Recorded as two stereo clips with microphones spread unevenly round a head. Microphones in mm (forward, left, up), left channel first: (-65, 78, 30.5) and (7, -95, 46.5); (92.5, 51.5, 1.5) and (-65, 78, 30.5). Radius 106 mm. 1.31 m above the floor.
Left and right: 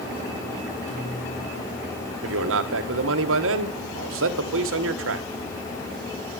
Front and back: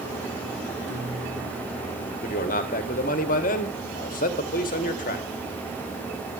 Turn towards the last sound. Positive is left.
turn(degrees=-55)